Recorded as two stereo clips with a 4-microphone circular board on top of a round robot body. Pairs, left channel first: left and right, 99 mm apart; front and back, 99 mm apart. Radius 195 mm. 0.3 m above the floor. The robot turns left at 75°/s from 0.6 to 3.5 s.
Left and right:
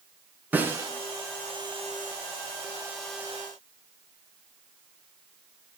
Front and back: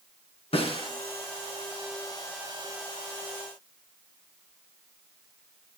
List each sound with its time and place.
0.5 s a snare drum: 15° right, 4.5 m; by 0.9 s 40° right, 4.5 m